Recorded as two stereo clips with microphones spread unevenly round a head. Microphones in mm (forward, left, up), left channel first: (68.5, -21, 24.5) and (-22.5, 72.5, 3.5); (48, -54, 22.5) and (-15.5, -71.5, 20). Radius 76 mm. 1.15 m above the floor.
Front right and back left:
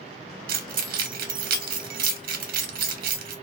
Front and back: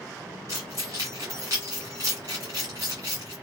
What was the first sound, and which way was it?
Keys jangling, 120° left.